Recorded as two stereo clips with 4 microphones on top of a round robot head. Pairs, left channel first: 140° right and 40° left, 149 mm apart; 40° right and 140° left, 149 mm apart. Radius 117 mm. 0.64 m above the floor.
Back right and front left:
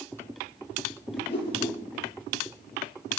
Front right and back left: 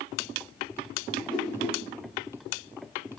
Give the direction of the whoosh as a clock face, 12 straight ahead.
4 o'clock.